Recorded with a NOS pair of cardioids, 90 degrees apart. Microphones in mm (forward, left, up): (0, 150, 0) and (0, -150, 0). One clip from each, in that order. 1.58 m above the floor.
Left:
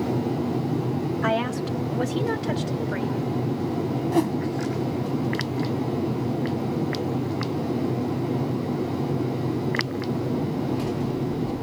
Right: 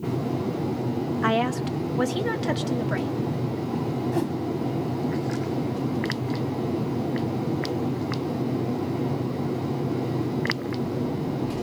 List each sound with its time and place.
1.2 s a woman speaking: 20° right, 1.7 m; by 3.2 s 65° right, 3.5 m
4.1 s a whoosh: 25° left, 1.3 m